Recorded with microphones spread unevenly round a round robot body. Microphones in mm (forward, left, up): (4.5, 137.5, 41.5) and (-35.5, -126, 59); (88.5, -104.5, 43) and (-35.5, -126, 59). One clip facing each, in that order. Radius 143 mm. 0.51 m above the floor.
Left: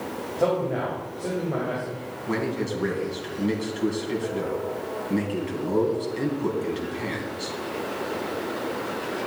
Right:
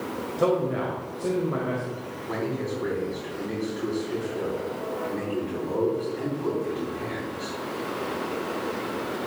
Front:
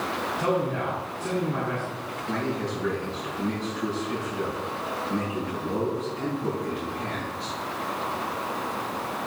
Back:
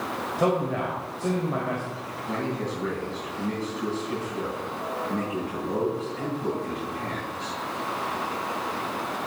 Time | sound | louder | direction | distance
0.4 | a man speaking | even, back 2 dB | 175° right | 2.5 m
2.3 | a man speaking | left 2 dB, front 1 dB | 125° left | 3.5 m